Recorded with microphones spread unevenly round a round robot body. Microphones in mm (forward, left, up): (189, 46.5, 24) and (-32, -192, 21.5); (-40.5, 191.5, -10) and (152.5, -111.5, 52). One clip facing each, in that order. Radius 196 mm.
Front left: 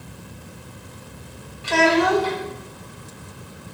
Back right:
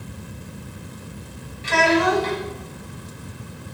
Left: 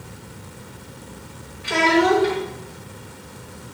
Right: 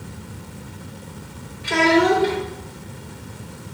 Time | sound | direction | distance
1.6 | a child speaking | 70° right | 1.7 m